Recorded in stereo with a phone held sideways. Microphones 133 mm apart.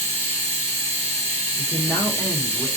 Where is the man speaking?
25° left (ahead or behind), 0.7 m.